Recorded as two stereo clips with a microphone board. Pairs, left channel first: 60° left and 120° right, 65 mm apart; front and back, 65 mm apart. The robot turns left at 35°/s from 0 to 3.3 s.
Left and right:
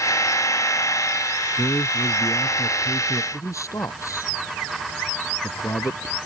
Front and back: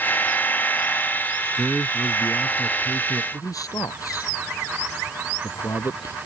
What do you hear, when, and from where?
1.6 s a man speaking: 95° left; by 3.2 s 35° left
3.3 s a man speaking: 25° left